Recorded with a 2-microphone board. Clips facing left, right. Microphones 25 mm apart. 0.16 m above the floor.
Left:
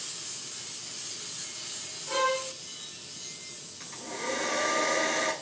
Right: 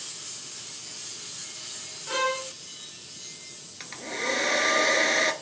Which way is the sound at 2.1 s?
40° right (ahead or behind).